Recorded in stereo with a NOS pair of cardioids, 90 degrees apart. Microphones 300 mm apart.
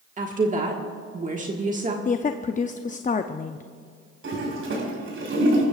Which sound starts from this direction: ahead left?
A woman speaking, at 2.0 s.